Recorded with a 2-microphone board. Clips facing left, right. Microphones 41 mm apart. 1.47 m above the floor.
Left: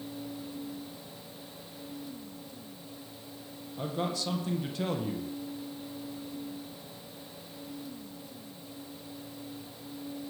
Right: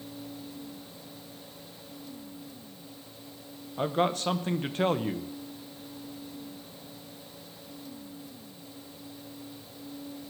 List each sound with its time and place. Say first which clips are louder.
3.8 s a man speaking: right 6 dB; 45° right (ahead or behind), 0.9 m